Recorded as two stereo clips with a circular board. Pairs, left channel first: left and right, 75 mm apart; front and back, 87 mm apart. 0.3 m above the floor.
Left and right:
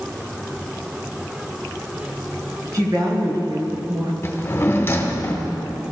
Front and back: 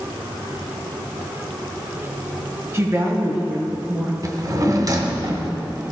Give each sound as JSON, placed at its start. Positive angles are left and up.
{"t": 2.7, "sound": "a woman speaking", "azimuth_deg": -120, "distance_m": 4.0}
{"t": 4.2, "sound": "a drawer", "azimuth_deg": 145, "distance_m": 1.4}